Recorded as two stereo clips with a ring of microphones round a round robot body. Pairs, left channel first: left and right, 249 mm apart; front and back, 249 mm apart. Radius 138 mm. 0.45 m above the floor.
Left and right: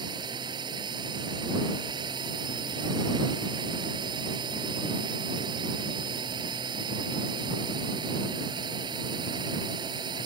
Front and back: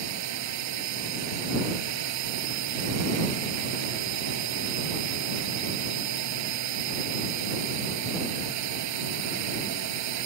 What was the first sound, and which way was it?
A drone, 165° right.